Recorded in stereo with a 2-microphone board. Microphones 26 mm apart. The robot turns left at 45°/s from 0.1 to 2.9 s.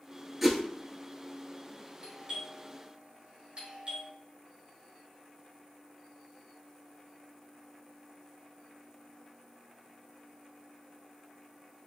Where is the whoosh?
5° right (ahead or behind), 0.8 m; by 0.6 s 5° left (ahead or behind), 0.8 m.